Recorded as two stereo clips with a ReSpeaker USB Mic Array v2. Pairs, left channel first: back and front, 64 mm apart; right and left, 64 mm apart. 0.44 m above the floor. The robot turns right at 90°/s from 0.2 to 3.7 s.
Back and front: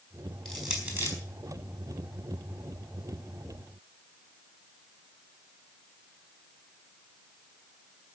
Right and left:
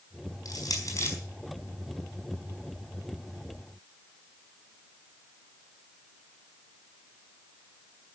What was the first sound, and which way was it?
Crushing, 95° right.